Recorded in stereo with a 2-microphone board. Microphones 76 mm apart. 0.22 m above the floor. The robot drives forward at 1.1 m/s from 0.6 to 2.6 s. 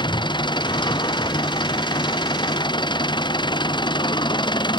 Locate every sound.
0.0 s an engine running: 85° left